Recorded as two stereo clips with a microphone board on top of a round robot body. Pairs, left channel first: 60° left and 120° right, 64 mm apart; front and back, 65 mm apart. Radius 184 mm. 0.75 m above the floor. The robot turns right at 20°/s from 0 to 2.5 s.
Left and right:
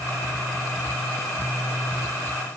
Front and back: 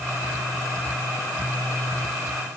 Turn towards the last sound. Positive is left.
No sound to turn to.